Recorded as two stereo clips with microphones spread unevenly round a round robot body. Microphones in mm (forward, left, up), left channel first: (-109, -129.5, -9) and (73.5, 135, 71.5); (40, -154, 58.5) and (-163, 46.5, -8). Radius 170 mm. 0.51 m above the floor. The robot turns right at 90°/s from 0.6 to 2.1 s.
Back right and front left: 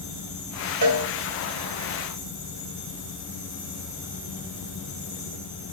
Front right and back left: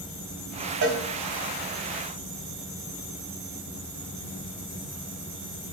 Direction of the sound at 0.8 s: 85° left.